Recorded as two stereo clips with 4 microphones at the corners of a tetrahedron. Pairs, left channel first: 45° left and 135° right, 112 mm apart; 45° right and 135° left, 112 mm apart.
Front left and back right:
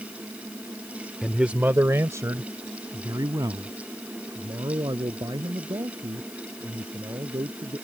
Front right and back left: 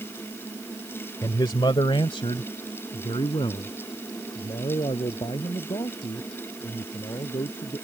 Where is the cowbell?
No cowbell in this recording.